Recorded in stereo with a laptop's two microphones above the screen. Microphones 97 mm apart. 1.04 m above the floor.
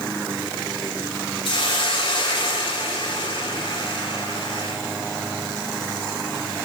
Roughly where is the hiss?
Left.